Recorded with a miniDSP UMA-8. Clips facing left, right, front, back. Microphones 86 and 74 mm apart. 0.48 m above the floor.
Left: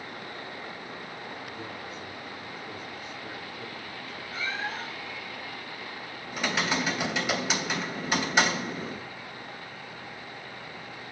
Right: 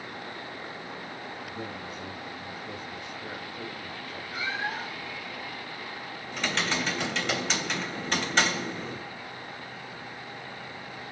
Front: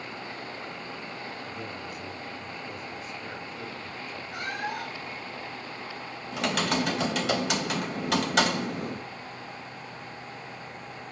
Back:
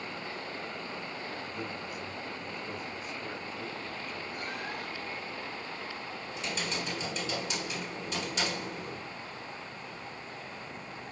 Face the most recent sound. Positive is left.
turn(degrees=10)